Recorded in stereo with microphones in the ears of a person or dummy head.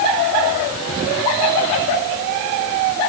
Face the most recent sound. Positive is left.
No sound to turn to.